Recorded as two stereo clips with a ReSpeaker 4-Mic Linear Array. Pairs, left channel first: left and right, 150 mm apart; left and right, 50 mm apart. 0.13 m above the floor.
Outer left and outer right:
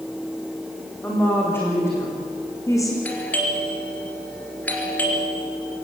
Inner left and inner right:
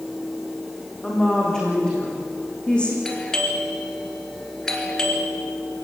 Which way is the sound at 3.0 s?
10° left (ahead or behind).